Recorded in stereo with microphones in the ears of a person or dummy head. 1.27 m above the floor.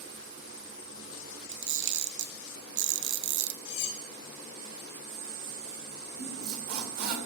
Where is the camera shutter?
65° right (ahead or behind), 1.1 m.